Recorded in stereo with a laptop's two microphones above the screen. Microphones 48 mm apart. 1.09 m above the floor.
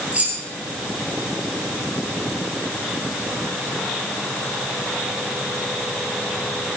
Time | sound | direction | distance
0.1 | keys jangling | 30° right (ahead or behind) | 3 m